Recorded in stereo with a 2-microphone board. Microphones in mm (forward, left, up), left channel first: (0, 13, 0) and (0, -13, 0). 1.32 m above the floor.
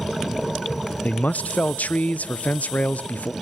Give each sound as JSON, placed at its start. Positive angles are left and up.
{"t": 1.0, "sound": "a man speaking", "side_deg": 75, "distance_m": 0.6}